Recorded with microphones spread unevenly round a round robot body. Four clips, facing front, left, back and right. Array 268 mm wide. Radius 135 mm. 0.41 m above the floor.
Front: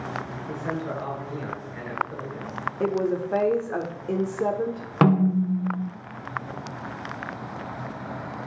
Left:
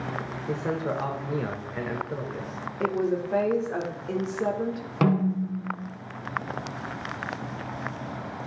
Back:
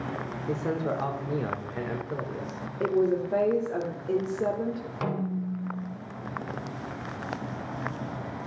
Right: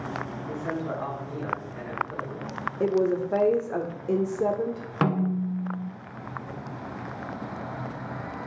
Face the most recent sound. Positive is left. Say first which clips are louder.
# left 2 dB, front 12 dB
turn(degrees=5)